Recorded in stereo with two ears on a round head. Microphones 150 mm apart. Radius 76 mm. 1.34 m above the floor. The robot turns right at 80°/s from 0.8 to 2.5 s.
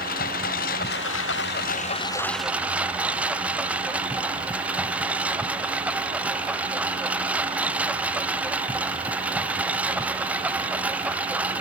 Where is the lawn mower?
50° left (ahead or behind); by 11.6 s 10° right (ahead or behind).